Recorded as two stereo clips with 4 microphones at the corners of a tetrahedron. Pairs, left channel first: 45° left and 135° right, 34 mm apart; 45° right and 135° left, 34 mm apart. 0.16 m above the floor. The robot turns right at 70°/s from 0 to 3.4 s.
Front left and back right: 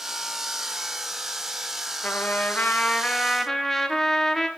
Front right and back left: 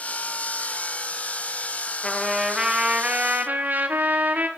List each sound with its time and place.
2.0 s a trumpet: 25° left, 0.6 m; by 4.5 s 120° left, 0.6 m